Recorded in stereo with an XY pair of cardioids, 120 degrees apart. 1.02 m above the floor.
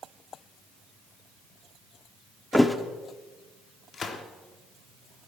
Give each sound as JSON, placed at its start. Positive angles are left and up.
{"t": 2.5, "sound": "a thud", "azimuth_deg": 10, "distance_m": 1.0}
{"t": 3.9, "sound": "a gunshot", "azimuth_deg": 40, "distance_m": 1.6}